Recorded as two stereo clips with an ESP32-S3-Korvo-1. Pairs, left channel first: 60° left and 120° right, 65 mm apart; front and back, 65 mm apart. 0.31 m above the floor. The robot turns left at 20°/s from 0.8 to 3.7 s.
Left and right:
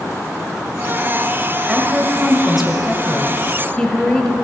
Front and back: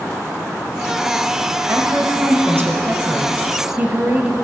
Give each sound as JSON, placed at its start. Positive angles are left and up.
{"t": 1.7, "sound": "a woman speaking", "azimuth_deg": 175, "distance_m": 1.1}